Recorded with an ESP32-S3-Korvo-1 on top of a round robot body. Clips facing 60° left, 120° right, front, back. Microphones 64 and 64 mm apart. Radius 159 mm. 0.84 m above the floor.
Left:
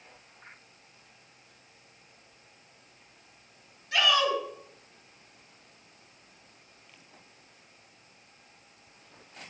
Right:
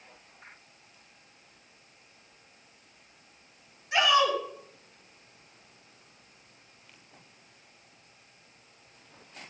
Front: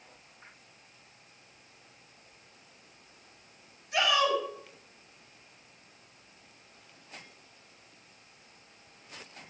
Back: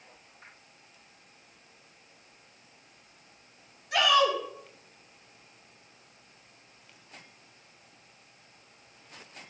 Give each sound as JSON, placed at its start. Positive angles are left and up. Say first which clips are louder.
{"t": 3.9, "sound": "a shout", "louder": "right 2 dB, back 3 dB", "azimuth_deg": 170, "distance_m": 8.0}